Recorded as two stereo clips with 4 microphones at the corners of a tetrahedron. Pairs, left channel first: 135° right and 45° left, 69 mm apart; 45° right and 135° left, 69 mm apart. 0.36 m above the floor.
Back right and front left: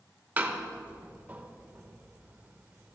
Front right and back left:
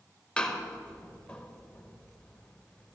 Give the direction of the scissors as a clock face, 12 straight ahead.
I don't hear scissors.